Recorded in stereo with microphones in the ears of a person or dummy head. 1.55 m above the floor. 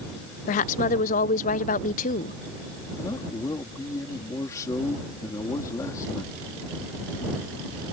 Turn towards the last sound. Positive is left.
turn(degrees=15)  # may be behind; listen again after turning